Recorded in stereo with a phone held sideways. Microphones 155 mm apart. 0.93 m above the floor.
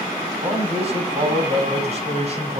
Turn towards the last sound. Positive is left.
turn(degrees=-45)  # may be behind; listen again after turning